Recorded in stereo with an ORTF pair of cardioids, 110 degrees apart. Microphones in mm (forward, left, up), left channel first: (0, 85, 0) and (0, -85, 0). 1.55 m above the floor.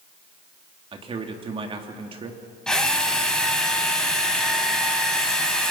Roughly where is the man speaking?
Ahead right.